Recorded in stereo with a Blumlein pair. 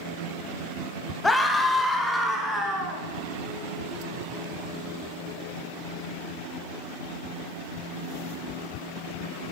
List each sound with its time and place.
1.2 s a scream: 5° left, 0.9 m; by 3.0 s 15° right, 1.9 m